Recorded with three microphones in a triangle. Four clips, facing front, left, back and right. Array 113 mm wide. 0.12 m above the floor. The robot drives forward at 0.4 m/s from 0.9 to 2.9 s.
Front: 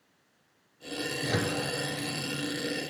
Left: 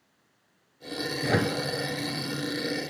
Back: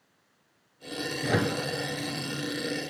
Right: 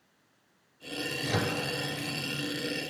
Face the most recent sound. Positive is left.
turn(degrees=135)